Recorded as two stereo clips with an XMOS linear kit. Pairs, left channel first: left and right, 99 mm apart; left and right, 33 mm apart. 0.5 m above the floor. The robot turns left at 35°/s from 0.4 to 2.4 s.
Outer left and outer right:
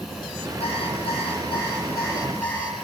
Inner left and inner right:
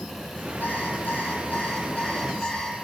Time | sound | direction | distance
0.6 | an alarm clock | 85° left | 9 m